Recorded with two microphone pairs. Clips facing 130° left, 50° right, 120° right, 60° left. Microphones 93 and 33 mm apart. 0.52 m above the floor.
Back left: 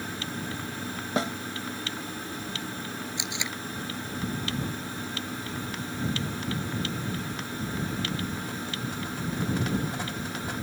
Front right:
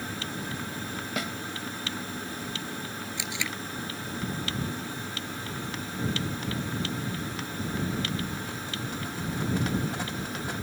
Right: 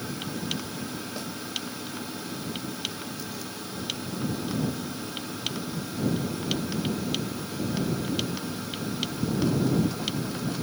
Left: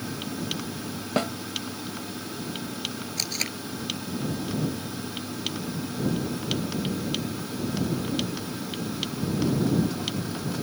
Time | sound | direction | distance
1.2 | a snare drum | 75° left | ?
3.2 | tape being pulled | 60° left | ?